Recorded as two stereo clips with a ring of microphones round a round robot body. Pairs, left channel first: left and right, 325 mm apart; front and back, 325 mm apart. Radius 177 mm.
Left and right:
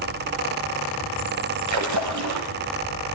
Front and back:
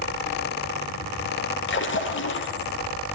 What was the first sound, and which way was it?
A splash, 55° right.